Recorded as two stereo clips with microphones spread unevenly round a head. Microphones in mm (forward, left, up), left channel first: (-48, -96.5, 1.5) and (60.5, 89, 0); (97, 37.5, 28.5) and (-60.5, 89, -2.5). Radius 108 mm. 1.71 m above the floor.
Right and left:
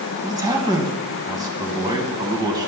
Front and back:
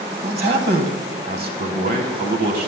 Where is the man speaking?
135° left, 1.7 m.